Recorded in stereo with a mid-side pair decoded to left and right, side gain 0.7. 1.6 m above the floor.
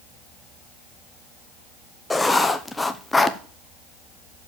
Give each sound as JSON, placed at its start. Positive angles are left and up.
{"t": 2.1, "sound": "writing", "azimuth_deg": 10, "distance_m": 0.8}